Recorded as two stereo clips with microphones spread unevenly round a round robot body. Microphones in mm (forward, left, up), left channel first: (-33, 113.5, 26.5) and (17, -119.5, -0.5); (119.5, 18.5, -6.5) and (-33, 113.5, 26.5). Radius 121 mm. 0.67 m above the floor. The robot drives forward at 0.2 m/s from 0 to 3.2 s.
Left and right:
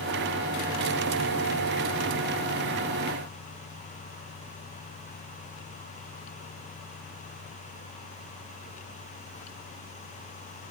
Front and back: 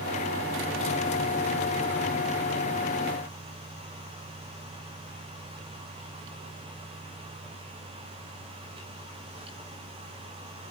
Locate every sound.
Only background noise.